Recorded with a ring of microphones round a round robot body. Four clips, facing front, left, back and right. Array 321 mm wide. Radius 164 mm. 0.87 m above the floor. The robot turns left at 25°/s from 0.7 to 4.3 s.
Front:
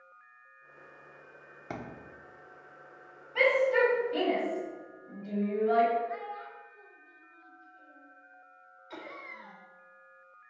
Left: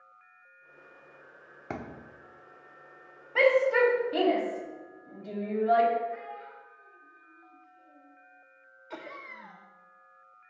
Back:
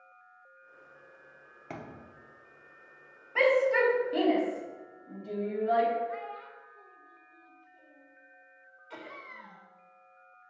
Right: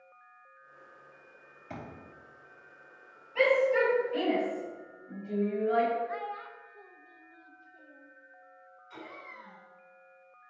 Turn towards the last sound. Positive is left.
turn(degrees=80)